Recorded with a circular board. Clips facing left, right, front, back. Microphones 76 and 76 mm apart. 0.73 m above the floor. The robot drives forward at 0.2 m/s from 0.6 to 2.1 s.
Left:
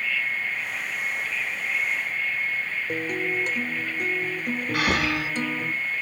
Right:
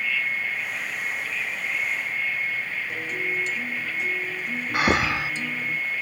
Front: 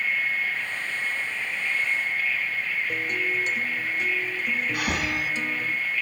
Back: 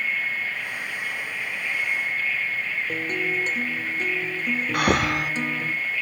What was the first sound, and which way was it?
A guitar, 125° left.